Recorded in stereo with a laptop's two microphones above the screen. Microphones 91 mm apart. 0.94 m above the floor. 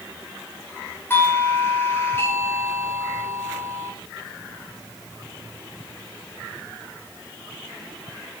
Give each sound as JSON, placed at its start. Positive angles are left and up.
{"t": 1.1, "sound": "a doorbell", "side_deg": 25, "distance_m": 5.5}